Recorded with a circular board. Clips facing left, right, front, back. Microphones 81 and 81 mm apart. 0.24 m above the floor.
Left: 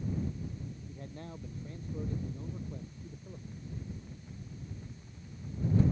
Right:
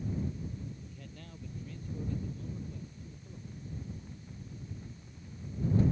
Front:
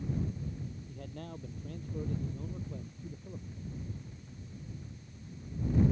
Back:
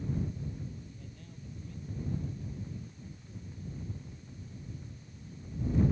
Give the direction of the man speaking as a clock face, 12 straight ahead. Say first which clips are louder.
Left 5 dB, front 7 dB; 11 o'clock.